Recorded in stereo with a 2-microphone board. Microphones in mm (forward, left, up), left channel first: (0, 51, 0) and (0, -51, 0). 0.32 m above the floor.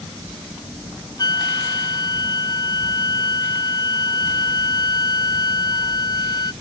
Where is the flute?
40° left (ahead or behind).